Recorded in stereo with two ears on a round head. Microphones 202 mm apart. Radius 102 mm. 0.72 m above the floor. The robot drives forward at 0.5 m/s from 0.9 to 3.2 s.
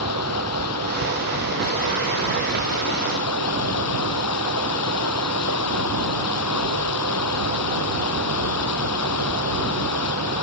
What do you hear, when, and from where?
0.0 s running water: 75° left (ahead or behind); by 10.4 s 80° left